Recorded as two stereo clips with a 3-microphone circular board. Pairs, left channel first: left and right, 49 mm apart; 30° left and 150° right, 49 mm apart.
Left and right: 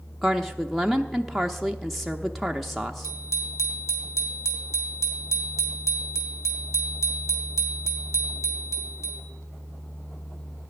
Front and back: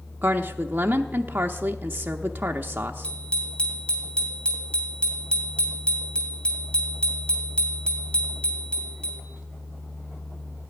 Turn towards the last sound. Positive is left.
turn(degrees=95)